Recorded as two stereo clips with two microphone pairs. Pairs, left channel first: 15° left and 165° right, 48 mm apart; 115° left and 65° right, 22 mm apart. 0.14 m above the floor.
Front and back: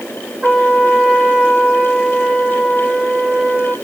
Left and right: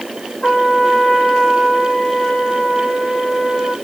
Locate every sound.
0.4 s a trumpet: 110° left, 2.5 m